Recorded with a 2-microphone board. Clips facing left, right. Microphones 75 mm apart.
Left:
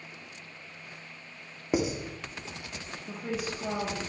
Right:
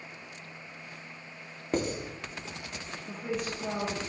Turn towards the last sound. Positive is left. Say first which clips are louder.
# even
turn(degrees=5)  # may be behind; listen again after turning